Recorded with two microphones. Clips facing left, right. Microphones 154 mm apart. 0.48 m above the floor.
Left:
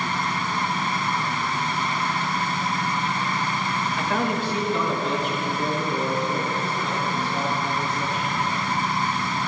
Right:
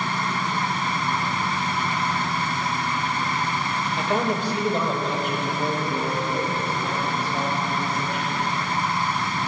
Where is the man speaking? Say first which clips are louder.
Right 2 dB; 25° right (ahead or behind), 1.6 m; by 8.5 s 70° right (ahead or behind), 6 m.